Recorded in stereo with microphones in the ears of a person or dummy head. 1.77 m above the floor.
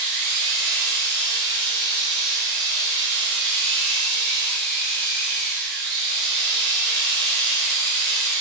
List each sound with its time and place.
0.0 s a machine running: 55° right (ahead or behind), 2.5 m